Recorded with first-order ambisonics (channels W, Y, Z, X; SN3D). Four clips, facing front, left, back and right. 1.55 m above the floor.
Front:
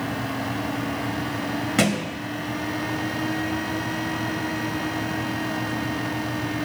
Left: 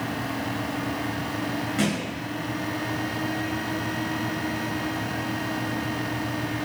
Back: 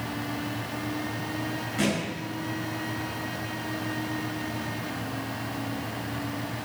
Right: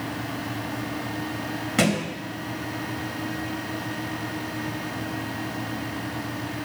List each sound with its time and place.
1.8 s a thud: 35° right, 3 m